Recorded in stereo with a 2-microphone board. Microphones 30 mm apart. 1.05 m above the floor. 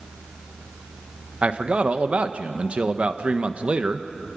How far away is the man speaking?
About 1.2 m.